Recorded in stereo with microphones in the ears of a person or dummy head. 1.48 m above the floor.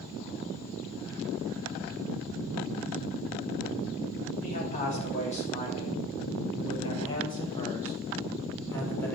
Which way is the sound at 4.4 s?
35° left (ahead or behind).